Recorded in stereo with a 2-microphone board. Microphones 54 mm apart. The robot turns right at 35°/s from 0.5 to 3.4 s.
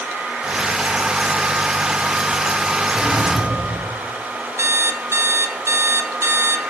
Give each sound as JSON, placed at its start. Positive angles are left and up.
{"t": 2.9, "sound": "a drawer", "side_deg": -35, "distance_m": 5.0}
{"t": 4.6, "sound": "an alarm clock", "side_deg": -65, "distance_m": 1.0}